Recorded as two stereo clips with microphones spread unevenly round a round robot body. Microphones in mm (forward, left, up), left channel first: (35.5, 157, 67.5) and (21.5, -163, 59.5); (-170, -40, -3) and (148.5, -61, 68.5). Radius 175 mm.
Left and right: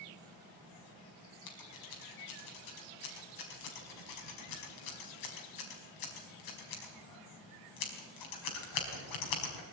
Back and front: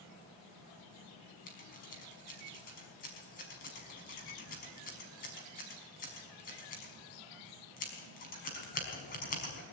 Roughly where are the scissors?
Left.